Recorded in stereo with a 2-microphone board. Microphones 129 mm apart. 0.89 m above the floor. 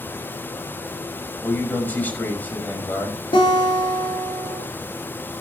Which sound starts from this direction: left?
A guitar, at 3.3 s.